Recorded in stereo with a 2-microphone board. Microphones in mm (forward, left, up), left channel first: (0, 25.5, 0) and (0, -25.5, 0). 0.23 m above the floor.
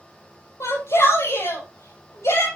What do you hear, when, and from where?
0.6 s a shout: 65° left (ahead or behind), 6 m